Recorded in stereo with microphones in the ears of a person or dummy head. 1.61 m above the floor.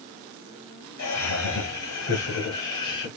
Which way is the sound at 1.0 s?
85° left.